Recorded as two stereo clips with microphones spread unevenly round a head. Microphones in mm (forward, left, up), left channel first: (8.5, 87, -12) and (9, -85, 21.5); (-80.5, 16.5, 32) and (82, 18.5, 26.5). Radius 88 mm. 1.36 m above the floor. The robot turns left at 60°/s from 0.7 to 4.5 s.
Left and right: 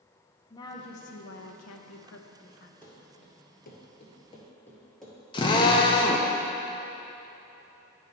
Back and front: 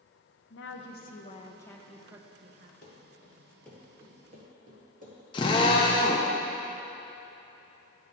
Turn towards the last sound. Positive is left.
turn(degrees=150)